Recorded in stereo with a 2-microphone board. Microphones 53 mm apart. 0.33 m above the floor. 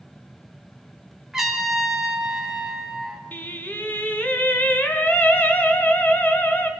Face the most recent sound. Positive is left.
turn(degrees=35)  # may be behind; listen again after turning